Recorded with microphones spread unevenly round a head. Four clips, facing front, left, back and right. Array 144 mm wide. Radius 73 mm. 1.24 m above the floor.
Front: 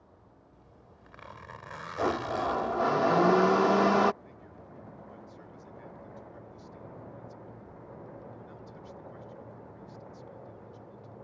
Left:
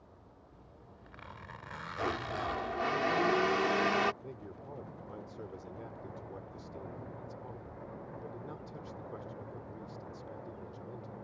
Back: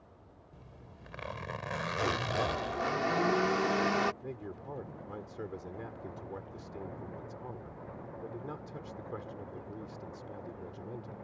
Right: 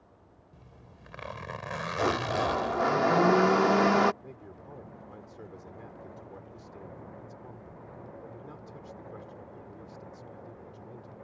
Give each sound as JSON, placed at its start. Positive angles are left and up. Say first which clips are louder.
{"t": 0.5, "sound": "a zipper", "louder": "right 3 dB, back 2 dB", "azimuth_deg": -125}
{"t": 2.0, "sound": "a blender", "louder": "right 7 dB, front 4 dB", "azimuth_deg": -60}
{"t": 4.2, "sound": "a man speaking", "louder": "even, back 8 dB", "azimuth_deg": 180}